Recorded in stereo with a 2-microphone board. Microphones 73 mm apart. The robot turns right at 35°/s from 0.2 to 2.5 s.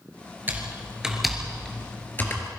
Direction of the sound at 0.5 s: 25° right (ahead or behind).